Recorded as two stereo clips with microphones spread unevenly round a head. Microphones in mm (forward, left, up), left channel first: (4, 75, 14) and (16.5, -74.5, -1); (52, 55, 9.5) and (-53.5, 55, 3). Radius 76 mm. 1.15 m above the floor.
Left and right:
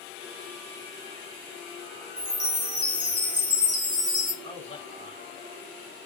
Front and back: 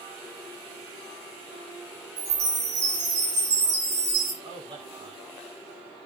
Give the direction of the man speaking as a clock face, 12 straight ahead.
7 o'clock.